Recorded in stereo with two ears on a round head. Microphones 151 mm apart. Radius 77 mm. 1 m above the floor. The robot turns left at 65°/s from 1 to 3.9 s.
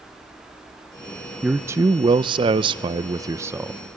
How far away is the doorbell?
I don't hear a doorbell.